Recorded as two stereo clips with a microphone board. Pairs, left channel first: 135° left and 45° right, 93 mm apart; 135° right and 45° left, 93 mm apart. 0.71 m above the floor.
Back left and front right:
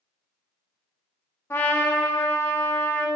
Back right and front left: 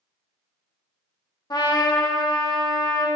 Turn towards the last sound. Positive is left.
turn(degrees=-165)